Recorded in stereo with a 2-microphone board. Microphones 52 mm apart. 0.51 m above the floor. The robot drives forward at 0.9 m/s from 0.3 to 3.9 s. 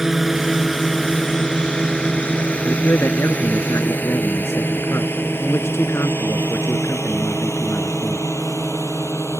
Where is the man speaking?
65° left (ahead or behind); by 8.3 s 60° left (ahead or behind).